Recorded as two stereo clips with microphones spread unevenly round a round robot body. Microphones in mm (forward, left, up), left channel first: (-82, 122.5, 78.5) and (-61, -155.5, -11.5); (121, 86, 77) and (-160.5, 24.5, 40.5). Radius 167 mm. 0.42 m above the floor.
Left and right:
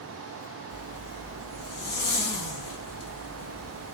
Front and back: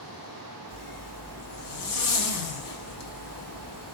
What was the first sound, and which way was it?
A zipper, 50° left.